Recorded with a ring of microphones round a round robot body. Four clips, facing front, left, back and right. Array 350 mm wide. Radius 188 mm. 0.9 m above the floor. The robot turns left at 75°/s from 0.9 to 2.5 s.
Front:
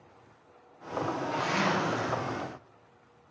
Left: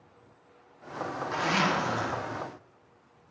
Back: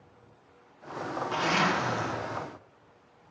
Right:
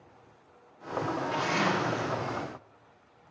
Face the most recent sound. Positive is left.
turn(degrees=50)